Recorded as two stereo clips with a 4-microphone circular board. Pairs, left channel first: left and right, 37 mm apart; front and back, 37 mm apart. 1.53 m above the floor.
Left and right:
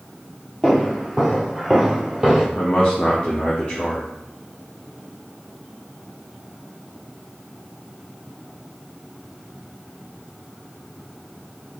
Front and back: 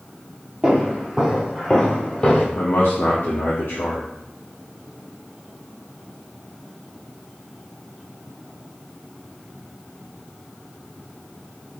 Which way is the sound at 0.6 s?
140° left.